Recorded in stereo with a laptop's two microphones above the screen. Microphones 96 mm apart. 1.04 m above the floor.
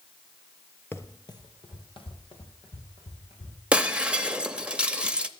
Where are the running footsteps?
25° left (ahead or behind), 1.1 m; by 3.6 s 75° left (ahead or behind), 4.5 m.